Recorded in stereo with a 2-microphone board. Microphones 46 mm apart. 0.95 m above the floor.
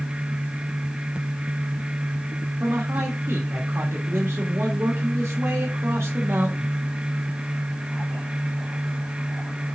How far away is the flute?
No flute in this recording.